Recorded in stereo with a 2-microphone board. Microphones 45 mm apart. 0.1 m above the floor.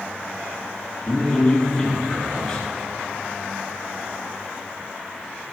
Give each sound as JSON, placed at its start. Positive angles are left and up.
{"t": 1.1, "sound": "a man speaking", "side_deg": 20, "distance_m": 1.6}